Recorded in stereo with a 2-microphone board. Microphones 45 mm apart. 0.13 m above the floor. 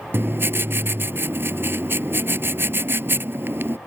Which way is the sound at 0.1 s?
60° right (ahead or behind).